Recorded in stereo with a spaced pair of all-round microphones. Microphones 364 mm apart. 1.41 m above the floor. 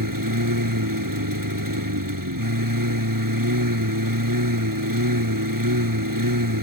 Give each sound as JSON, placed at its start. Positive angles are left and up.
{"t": 0.0, "sound": "a lawn mower", "side_deg": -65}